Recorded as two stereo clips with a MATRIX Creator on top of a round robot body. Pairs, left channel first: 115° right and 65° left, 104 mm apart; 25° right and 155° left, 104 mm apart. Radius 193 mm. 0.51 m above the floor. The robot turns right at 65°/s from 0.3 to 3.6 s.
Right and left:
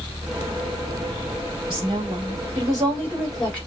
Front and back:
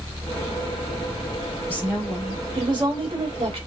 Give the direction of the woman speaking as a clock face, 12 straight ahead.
10 o'clock.